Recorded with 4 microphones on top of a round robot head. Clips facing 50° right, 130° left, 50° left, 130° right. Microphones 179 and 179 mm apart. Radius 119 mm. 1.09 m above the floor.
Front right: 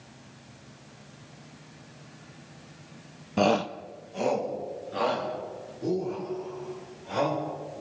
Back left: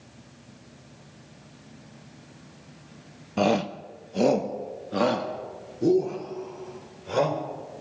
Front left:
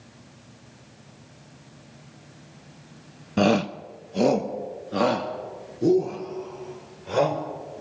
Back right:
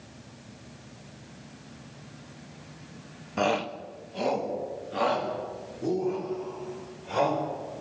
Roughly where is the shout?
Ahead left.